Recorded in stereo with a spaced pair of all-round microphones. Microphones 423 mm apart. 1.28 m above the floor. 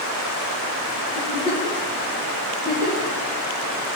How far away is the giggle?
About 3 m.